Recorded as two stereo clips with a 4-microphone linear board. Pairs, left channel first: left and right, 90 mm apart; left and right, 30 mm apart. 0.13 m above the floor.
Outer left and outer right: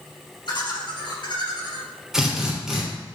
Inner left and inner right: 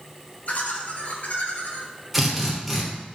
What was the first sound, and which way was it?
Laughter, 55° left (ahead or behind).